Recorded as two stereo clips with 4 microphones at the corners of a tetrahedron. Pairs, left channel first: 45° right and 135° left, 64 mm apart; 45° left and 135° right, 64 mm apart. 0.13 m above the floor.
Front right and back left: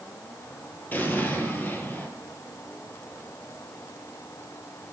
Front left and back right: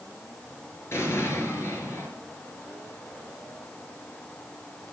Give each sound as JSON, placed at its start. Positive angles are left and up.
{"t": 0.9, "sound": "an explosion", "azimuth_deg": 10, "distance_m": 3.0}